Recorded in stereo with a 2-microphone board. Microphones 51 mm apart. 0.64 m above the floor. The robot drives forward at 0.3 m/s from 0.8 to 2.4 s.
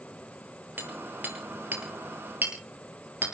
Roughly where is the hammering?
Right.